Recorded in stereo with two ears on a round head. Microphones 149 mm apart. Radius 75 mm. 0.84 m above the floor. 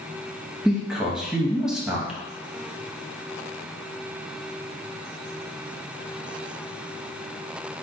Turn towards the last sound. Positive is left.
turn(degrees=-5)  # may be behind; listen again after turning